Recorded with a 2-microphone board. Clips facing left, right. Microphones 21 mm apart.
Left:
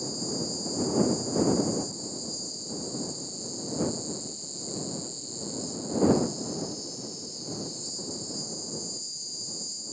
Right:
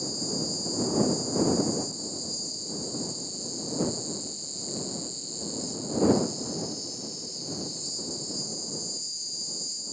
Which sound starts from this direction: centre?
An insect, at 0.0 s.